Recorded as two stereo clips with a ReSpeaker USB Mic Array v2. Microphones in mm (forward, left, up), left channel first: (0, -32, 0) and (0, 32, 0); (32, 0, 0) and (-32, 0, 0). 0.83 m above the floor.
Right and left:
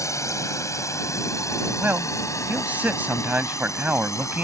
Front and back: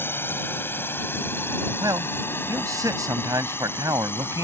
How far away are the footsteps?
I don't hear footsteps.